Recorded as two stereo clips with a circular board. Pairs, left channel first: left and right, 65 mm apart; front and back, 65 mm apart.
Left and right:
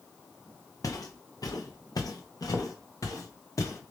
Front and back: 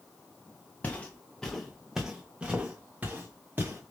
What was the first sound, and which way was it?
Footsteps, 65° left.